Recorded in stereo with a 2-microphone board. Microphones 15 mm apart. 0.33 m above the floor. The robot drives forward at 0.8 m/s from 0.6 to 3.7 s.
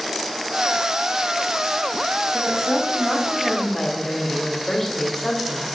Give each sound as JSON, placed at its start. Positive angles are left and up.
{"t": 2.3, "sound": "a woman speaking", "side_deg": 30, "distance_m": 1.5}